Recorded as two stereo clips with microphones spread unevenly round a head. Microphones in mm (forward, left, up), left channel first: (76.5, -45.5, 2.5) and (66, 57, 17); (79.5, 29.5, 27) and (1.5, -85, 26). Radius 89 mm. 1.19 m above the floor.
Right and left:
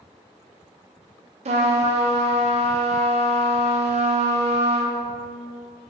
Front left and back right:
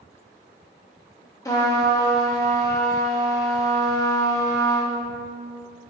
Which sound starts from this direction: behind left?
A trumpet, at 1.4 s.